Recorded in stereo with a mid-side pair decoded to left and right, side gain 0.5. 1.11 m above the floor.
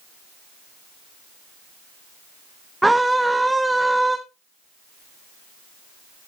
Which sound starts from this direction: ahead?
A scream, at 2.8 s.